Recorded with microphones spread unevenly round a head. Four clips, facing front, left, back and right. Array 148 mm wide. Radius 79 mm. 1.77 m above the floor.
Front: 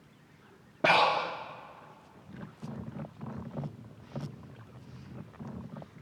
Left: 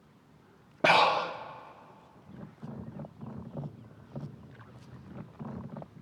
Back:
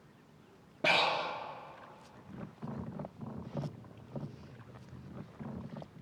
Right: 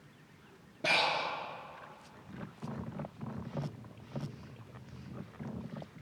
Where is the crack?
No crack in this recording.